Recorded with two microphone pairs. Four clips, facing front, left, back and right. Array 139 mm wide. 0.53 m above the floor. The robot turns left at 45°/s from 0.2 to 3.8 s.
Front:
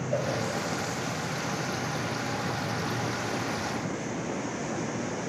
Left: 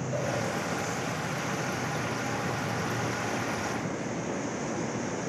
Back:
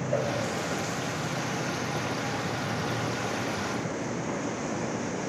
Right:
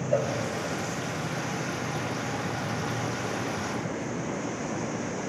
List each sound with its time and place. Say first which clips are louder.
0.1 s a cowbell: right 7 dB, back 1 dB; 80° right, 1.9 m; by 0.3 s 85° right, 1.9 m